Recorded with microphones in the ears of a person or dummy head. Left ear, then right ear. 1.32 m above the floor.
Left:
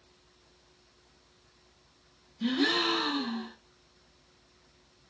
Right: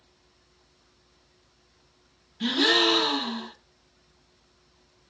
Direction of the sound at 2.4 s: 55° right (ahead or behind).